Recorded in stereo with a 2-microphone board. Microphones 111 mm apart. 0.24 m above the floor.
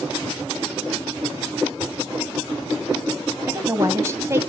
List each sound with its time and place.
1.7 s a drawer: 15° right (ahead or behind), 4 m
3.5 s a woman speaking: 25° right (ahead or behind), 1.3 m